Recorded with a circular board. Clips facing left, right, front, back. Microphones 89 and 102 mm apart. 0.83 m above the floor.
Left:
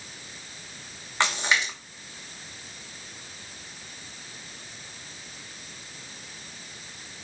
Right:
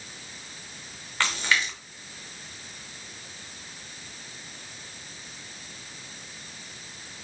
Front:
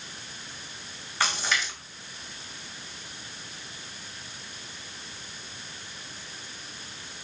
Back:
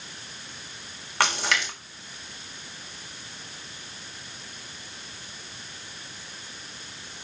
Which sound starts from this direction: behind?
A splash, at 1.2 s.